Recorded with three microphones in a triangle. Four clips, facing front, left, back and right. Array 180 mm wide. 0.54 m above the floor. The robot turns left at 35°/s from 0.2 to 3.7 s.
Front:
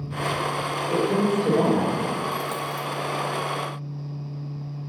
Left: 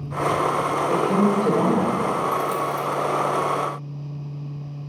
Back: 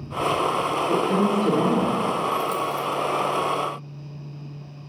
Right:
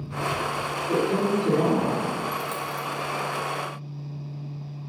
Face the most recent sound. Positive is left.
turn(degrees=-45)